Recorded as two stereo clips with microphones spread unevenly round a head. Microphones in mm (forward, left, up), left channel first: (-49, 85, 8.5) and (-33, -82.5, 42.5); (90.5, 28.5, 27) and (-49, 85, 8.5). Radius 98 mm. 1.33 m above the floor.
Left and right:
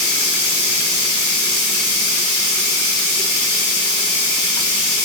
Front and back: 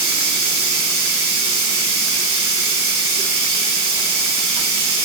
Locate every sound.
0.0 s running water: 160° left, 2 m